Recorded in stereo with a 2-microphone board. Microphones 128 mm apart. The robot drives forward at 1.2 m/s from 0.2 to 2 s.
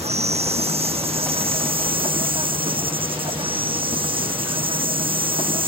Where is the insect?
55° right (ahead or behind); by 5.7 s 45° right (ahead or behind).